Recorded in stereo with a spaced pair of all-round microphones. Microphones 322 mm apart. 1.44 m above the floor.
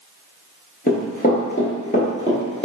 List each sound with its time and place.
0.9 s running footsteps: 25° left (ahead or behind), 1.6 m; by 2.6 s 20° left (ahead or behind), 1.5 m